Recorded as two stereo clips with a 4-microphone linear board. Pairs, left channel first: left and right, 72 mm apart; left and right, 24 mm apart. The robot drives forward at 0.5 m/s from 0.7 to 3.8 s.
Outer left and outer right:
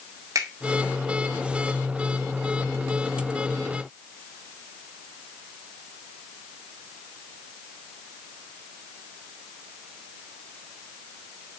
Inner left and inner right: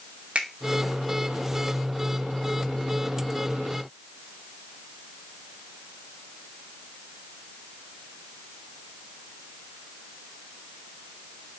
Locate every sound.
0.3 s a finger snap: 60° right (ahead or behind), 1.8 m